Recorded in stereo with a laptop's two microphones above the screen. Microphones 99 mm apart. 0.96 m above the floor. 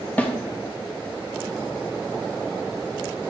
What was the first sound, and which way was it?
A snare drum, 15° left (ahead or behind).